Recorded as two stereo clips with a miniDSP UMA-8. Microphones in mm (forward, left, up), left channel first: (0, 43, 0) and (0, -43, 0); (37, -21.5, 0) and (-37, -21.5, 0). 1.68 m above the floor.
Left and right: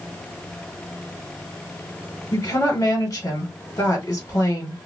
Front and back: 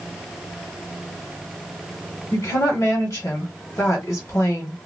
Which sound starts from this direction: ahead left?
A woman speaking, at 2.3 s.